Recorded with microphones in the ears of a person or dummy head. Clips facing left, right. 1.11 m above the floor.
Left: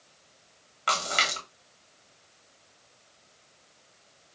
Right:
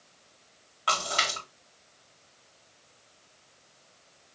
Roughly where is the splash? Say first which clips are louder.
Even; left.